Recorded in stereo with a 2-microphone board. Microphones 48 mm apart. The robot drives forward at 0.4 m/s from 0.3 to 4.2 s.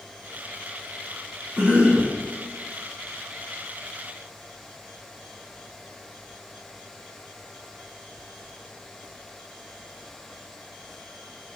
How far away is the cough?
About 1.1 m.